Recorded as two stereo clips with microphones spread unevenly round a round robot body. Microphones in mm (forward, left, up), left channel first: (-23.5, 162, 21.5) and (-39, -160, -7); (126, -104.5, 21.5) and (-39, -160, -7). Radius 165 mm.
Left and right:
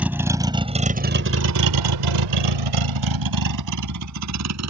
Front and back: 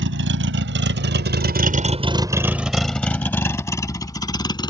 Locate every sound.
0.0 s a vehicle: straight behind; by 4.7 s 45° right